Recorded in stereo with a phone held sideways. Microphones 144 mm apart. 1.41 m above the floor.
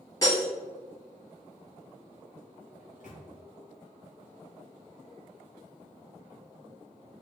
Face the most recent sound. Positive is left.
turn(degrees=65)  # may be behind; listen again after turning